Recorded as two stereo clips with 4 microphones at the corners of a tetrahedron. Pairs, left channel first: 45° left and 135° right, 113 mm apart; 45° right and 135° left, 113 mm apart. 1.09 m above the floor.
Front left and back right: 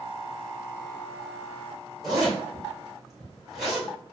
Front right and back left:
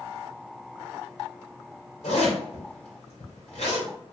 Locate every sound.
2.0 s a zipper: 50° right, 2 m